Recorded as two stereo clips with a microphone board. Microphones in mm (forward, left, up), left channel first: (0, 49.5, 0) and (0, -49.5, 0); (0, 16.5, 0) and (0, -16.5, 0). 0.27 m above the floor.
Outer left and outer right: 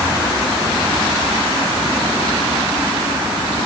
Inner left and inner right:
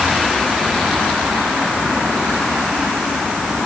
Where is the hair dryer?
I don't hear a hair dryer.